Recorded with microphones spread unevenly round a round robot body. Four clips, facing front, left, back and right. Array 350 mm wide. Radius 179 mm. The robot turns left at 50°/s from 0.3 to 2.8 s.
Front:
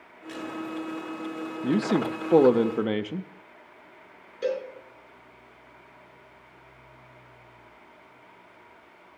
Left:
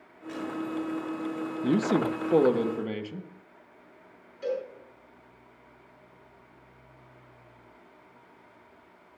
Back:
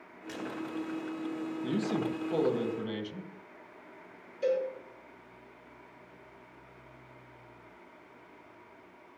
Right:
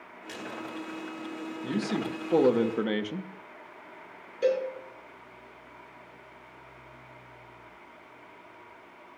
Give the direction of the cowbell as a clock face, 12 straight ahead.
2 o'clock.